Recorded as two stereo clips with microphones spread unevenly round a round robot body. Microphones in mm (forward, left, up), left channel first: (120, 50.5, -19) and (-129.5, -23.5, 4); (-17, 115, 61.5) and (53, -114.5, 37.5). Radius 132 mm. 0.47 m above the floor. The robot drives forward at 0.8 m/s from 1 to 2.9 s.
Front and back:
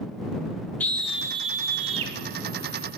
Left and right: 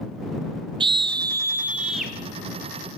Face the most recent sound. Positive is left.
turn(degrees=-170)